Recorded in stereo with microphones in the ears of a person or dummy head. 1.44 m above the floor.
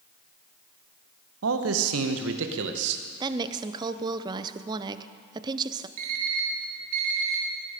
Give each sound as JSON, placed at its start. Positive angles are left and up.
{"t": 1.4, "sound": "a man speaking", "side_deg": -70, "distance_m": 1.1}
{"t": 3.2, "sound": "a woman speaking", "side_deg": -30, "distance_m": 0.6}
{"t": 6.0, "sound": "an alarm clock", "side_deg": -50, "distance_m": 2.5}